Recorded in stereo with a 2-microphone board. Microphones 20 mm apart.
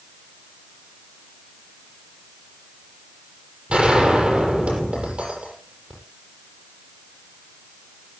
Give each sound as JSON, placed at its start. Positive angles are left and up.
{"t": 3.7, "sound": "a gunshot", "side_deg": -60, "distance_m": 8.5}